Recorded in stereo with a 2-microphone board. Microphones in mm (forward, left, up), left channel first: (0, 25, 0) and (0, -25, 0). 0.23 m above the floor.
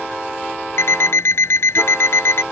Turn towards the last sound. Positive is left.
turn(degrees=60)  # may be behind; listen again after turning